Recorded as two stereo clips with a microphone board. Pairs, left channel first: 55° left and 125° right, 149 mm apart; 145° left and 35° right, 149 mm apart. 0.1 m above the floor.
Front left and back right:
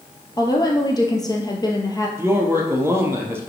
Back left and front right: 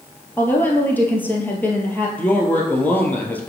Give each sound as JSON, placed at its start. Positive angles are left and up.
{"t": 0.4, "sound": "a woman speaking", "azimuth_deg": 80, "distance_m": 1.3}
{"t": 2.2, "sound": "a man speaking", "azimuth_deg": -160, "distance_m": 1.1}